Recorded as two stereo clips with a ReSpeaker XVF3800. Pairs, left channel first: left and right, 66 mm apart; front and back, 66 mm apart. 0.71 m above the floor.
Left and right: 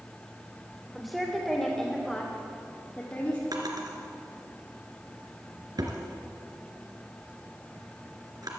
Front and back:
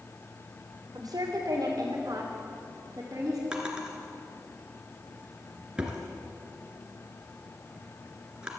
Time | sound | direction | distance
0.9 | a woman speaking | straight behind | 3 m
3.5 | a drawer | 105° right | 2.5 m